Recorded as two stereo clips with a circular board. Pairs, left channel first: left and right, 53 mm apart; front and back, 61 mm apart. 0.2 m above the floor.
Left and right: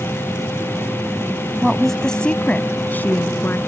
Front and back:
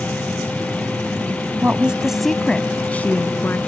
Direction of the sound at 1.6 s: 170° right.